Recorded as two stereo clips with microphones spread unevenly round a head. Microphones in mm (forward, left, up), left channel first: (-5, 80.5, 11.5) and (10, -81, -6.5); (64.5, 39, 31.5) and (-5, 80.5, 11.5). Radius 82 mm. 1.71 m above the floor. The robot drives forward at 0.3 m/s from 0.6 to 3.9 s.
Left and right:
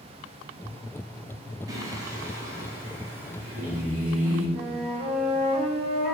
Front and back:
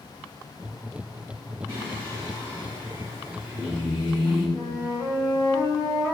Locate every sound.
1.7 s singing: 145° right, 0.9 m; by 4.5 s 165° right, 1.3 m
4.5 s a flute: 135° right, 1.0 m